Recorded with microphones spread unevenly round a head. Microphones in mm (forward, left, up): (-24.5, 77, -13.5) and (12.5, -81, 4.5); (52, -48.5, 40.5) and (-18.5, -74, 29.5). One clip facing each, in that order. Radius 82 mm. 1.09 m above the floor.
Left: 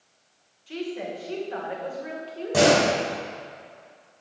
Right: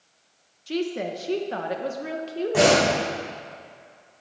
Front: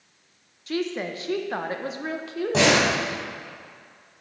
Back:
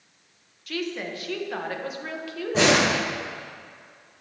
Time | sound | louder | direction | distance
0.7 | a woman speaking | right 5 dB, front 3 dB | 45° right | 1.0 m
2.5 | a door slam | even, even | 60° left | 5 m